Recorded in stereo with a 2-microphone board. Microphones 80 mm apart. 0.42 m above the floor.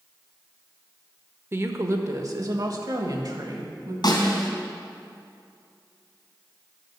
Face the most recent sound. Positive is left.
turn(degrees=65)  # may be behind; listen again after turning